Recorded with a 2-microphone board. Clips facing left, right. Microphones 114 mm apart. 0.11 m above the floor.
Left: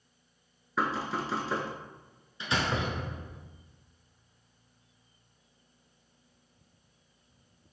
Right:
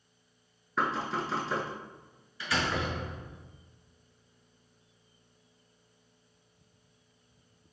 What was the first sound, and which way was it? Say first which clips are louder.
Knocking: even; centre (ahead or behind).